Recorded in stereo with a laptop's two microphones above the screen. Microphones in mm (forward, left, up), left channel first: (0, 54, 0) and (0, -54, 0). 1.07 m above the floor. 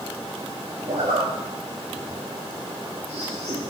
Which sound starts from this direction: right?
A zipper, at 0.9 s.